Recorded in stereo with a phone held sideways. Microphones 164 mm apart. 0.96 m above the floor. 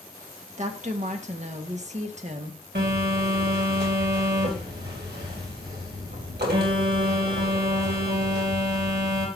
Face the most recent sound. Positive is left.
turn(degrees=-80)